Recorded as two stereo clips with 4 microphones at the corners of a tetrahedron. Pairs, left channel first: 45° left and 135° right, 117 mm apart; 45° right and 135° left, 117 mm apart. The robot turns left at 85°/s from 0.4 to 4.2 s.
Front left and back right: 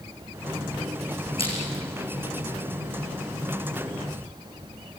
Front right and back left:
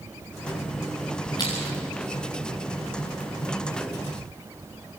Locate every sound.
1.4 s crushing: 10° left, 6 m; by 1.6 s 5° right, 6 m